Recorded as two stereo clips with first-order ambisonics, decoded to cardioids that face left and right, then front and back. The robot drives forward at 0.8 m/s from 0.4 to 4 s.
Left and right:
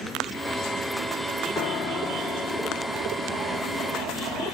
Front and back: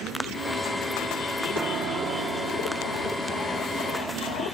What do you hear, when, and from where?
1.6 s a piano: 110° left, 1.0 m; by 4.4 s 160° left, 2.5 m